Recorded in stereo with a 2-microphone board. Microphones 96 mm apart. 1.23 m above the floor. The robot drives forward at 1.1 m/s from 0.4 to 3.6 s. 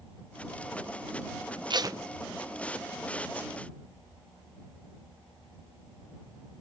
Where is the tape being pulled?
50° right (ahead or behind); by 2.0 s 35° right (ahead or behind).